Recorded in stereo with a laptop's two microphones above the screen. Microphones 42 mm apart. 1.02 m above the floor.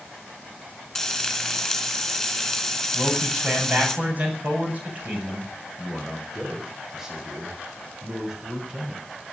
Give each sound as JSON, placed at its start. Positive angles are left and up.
{"t": 0.9, "sound": "frying", "side_deg": 5, "distance_m": 4.0}
{"t": 2.9, "sound": "a man speaking", "side_deg": -40, "distance_m": 7.5}
{"t": 5.8, "sound": "a man speaking", "side_deg": -15, "distance_m": 5.0}